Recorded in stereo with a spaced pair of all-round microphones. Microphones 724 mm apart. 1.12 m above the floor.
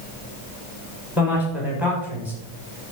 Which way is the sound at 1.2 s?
Centre (ahead or behind).